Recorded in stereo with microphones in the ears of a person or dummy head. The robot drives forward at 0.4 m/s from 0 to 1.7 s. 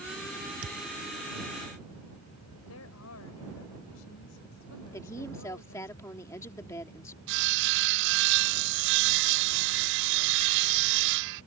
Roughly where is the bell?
I don't hear a bell.